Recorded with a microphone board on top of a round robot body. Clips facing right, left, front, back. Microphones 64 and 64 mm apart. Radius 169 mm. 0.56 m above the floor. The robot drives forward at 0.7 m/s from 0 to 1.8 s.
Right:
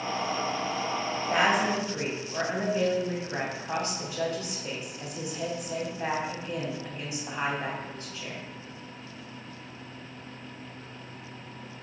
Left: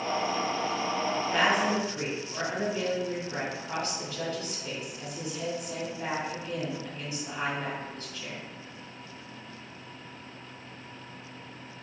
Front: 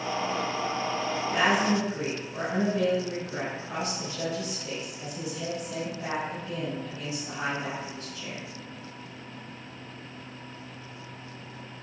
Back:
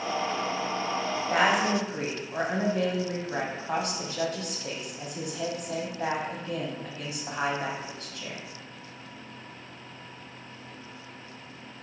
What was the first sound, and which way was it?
A woman speaking, 165° right.